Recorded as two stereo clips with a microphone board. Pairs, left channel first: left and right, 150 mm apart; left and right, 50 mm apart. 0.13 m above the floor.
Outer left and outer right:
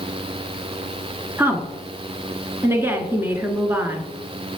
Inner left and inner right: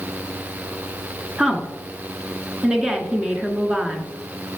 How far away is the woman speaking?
About 1.4 m.